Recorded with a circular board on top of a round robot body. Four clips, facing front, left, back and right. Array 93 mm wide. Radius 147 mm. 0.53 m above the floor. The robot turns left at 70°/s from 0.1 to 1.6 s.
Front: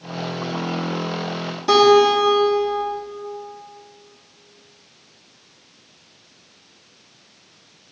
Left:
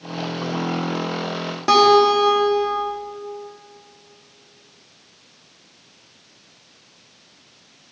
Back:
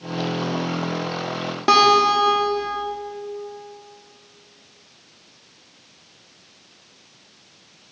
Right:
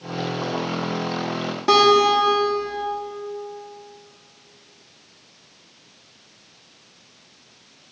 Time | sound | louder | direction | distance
1.7 | a guitar | left 2 dB, front 3 dB | 165° left | 1.9 m